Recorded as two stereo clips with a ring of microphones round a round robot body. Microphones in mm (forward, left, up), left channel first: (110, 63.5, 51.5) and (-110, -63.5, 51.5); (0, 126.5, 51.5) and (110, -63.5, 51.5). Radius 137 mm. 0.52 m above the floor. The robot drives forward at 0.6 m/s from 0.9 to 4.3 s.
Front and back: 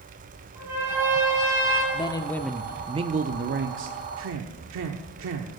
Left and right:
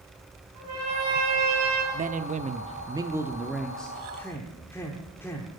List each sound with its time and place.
0.6 s a trumpet: 70° right, 8 m; by 1.8 s 75° right, 8 m
1.9 s a man speaking: 30° right, 0.9 m; by 5.5 s 160° right, 1.2 m